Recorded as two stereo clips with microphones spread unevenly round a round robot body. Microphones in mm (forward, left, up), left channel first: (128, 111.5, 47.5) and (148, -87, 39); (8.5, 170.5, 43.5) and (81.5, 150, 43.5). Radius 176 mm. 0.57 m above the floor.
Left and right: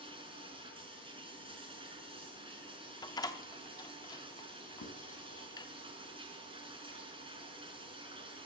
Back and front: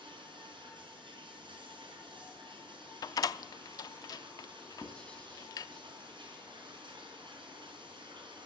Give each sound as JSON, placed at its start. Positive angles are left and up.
{"t": 0.0, "sound": "running water", "azimuth_deg": -20, "distance_m": 4.5}
{"t": 3.0, "sound": "a door slam", "azimuth_deg": 165, "distance_m": 0.5}
{"t": 4.8, "sound": "writing", "azimuth_deg": 85, "distance_m": 2.5}